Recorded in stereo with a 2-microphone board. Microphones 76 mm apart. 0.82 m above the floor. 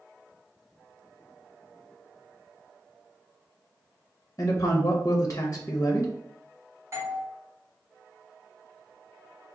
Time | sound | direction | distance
4.4 | a man speaking | 40° left (ahead or behind) | 0.6 m
6.9 | a doorbell | 35° right (ahead or behind) | 1.1 m